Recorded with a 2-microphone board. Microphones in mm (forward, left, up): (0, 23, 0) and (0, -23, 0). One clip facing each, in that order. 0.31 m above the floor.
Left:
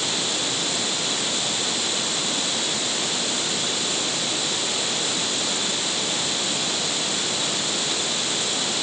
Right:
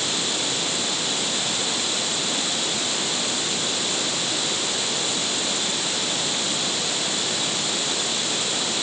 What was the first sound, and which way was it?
Only background noise.